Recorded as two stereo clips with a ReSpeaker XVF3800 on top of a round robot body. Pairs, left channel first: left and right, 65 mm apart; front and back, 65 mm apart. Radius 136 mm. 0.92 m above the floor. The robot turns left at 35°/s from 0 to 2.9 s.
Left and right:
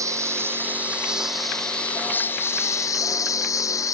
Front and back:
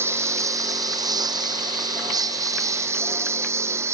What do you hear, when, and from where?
0.0 s a lawn mower: 130° right; by 4.0 s 130° left